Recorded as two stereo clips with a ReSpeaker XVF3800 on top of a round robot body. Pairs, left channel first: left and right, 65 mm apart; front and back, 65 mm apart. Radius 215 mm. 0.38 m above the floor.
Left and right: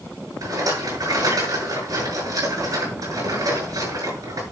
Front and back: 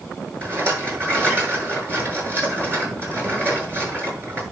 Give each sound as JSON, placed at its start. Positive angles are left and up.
{"t": 0.4, "sound": "a rattle", "azimuth_deg": -125, "distance_m": 7.0}